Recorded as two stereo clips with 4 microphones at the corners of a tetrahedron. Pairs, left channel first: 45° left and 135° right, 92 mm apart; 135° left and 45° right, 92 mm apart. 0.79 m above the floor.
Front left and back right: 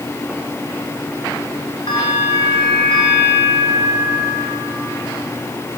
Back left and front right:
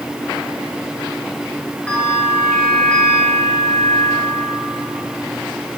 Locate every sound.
1.9 s a bell: 60° left, 4 m